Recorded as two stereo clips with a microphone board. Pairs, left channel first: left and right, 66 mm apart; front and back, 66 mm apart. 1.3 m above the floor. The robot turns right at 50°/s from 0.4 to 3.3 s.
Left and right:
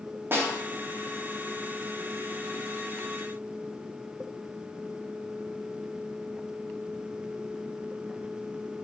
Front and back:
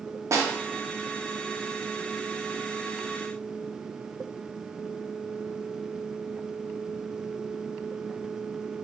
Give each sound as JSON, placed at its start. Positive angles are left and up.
{"t": 0.3, "sound": "a snare drum", "azimuth_deg": -140, "distance_m": 0.6}